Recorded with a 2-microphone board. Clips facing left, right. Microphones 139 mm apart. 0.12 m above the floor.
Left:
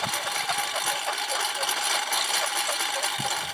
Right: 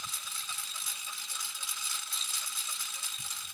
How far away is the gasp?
I don't hear a gasp.